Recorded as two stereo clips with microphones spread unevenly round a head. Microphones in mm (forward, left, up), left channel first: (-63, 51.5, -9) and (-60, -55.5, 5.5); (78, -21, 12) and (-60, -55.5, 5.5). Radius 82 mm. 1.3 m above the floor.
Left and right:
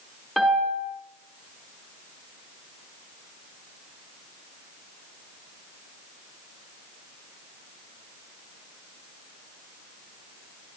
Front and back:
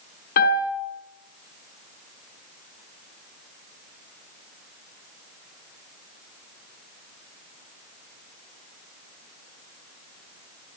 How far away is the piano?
About 5.5 m.